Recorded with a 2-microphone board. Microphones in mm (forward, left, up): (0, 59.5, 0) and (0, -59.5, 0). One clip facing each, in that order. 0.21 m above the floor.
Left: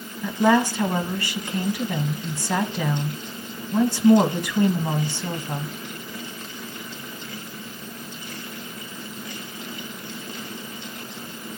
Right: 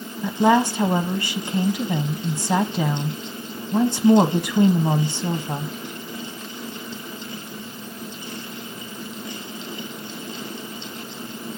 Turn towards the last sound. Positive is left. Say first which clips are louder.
# right 1 dB
turn(degrees=-20)  # may be behind; listen again after turning